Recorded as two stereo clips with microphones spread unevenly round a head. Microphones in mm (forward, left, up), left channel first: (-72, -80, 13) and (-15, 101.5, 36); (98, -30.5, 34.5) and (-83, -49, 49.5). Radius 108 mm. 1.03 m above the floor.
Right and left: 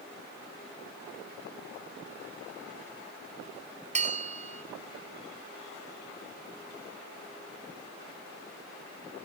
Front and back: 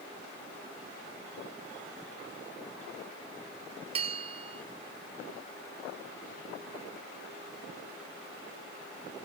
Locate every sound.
4.0 s a bell: 125° left